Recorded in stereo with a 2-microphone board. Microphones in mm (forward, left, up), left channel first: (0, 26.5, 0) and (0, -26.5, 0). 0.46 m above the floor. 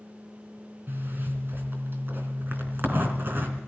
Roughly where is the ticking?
No ticking in this recording.